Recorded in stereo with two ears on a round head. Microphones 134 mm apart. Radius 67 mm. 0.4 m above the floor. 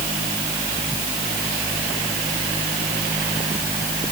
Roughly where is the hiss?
No hiss in this recording.